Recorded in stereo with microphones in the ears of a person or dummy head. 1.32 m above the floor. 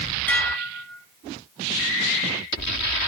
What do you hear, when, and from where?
0.3 s dishes clattering: 10° left (ahead or behind), 0.7 m